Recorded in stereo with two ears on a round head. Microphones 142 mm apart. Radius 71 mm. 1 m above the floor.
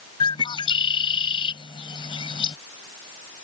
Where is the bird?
30° left (ahead or behind).